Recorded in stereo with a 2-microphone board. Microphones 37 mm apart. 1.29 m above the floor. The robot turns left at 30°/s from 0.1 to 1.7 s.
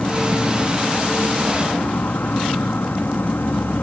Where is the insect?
135° left; by 3.8 s 85° left.